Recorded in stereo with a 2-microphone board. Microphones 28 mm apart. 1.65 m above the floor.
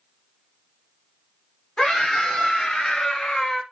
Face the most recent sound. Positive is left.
turn(degrees=20)  # may be behind; listen again after turning